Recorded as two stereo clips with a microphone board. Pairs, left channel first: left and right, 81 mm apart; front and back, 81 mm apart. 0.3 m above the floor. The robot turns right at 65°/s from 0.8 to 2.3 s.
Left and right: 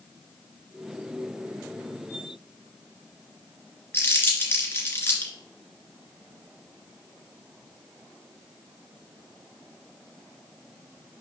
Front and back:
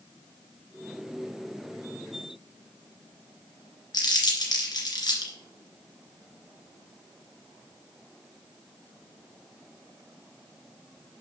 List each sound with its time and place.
3.9 s crumpling: 25° left, 2.5 m